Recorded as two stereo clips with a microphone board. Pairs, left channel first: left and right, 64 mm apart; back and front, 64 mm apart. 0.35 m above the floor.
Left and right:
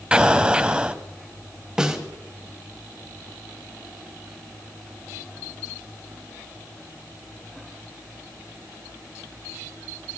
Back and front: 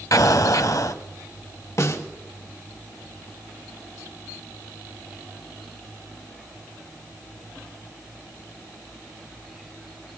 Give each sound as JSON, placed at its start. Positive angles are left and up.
{"t": 0.1, "sound": "an explosion", "azimuth_deg": -165, "distance_m": 0.9}
{"t": 1.8, "sound": "a snare drum", "azimuth_deg": -165, "distance_m": 2.0}